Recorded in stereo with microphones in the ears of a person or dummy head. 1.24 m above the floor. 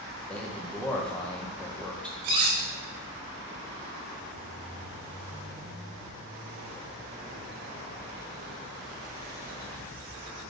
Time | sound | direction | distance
0.3 | a man speaking | 5° left (ahead or behind) | 0.9 m
2.2 | cutlery clinking | 25° right (ahead or behind) | 0.6 m